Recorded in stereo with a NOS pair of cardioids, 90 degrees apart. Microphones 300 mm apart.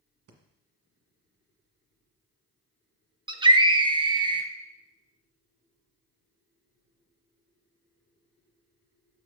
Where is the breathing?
55° right, 1.8 m.